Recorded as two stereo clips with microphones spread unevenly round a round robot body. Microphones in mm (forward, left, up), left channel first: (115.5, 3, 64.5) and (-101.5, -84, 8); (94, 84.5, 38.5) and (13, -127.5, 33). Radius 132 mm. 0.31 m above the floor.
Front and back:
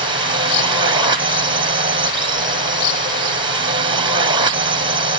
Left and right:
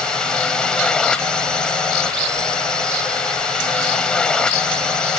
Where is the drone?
155° left.